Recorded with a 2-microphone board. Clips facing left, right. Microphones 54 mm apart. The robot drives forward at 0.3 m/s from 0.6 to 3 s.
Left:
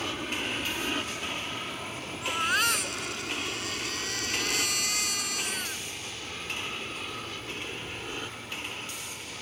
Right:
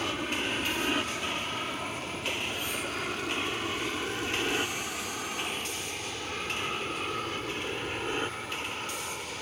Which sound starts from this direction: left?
A baby crying, at 2.2 s.